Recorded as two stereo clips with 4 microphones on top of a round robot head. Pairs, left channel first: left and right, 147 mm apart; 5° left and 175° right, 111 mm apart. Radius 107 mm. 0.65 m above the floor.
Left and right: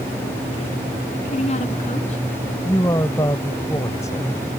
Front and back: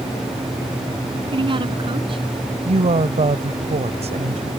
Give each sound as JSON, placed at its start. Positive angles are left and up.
{"t": 1.3, "sound": "a woman speaking", "azimuth_deg": 140}
{"t": 2.6, "sound": "a woman speaking", "azimuth_deg": 165}